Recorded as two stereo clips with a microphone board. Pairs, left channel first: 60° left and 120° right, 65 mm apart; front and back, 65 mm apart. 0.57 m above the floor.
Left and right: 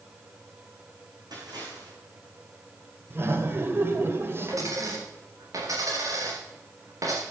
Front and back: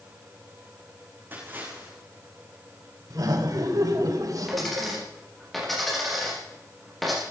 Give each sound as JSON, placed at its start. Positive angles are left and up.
{"t": 1.3, "sound": "a splash", "azimuth_deg": -120, "distance_m": 8.0}
{"t": 3.1, "sound": "laughter", "azimuth_deg": -170, "distance_m": 2.5}
{"t": 4.5, "sound": "a dropped coin", "azimuth_deg": -85, "distance_m": 6.5}